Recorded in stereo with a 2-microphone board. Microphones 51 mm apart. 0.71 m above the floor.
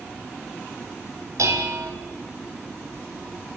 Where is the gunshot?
No gunshot in this recording.